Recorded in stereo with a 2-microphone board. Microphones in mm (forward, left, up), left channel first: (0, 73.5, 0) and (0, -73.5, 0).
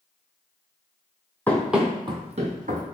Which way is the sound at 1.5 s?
10° left (ahead or behind).